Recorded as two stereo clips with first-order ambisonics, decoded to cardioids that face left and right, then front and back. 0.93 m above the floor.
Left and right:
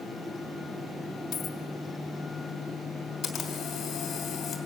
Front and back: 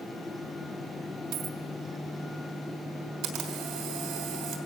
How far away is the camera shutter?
About 3 m.